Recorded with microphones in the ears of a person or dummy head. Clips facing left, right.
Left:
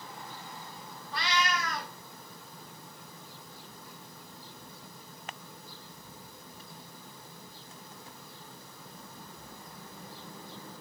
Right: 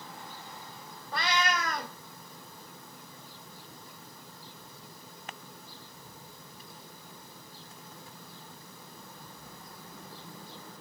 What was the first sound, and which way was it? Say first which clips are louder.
A cat meowing: right 1 dB; 45° right (ahead or behind).